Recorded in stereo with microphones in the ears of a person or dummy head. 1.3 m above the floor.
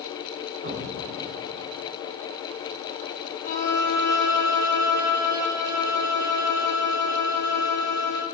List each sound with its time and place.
0.6 s an explosion: 40° right (ahead or behind), 1.7 m
3.4 s a violin: 55° left (ahead or behind), 5.5 m